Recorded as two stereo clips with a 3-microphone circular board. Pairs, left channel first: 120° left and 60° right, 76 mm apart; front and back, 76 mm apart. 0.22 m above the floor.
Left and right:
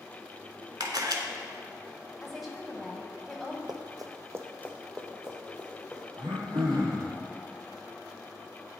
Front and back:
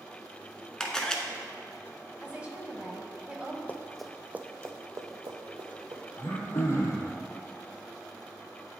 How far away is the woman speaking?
About 1.0 m.